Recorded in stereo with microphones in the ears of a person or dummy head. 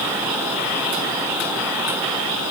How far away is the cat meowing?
No cat meowing in this recording.